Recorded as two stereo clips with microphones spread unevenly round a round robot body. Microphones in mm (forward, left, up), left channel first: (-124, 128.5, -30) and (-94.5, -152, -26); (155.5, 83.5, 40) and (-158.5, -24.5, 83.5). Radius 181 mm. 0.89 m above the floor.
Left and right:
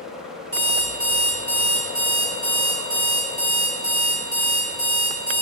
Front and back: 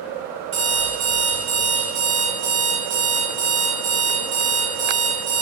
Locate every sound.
0.5 s an alarm clock: 175° left, 0.8 m